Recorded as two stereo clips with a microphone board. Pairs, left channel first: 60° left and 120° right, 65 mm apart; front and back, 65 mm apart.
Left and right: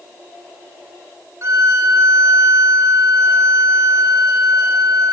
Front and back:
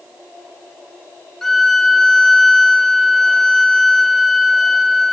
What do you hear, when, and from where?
1.4 s a violin: 85° right, 0.7 m